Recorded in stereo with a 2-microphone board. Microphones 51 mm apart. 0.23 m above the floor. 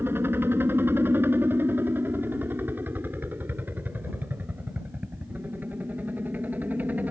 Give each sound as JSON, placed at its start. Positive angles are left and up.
{"t": 0.0, "sound": "a helicopter", "side_deg": -50}